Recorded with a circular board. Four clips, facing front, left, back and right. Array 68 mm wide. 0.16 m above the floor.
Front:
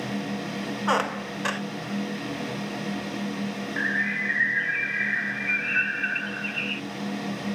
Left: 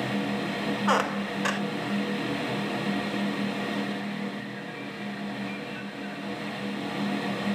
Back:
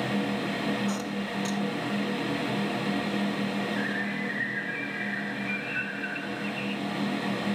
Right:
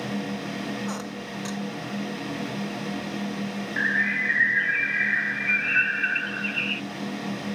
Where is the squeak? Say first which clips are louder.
Left 8 dB, front 6 dB; 40° left.